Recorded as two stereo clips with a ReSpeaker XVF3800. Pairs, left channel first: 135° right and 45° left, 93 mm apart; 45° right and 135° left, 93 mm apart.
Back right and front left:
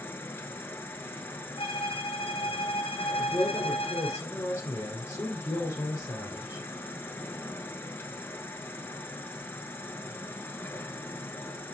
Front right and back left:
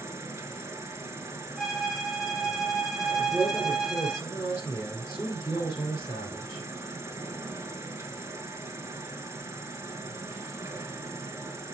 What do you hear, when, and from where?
0.0 s an insect: 170° left, 1.1 m
1.6 s a violin: 140° right, 0.9 m
3.2 s a man speaking: 95° right, 2 m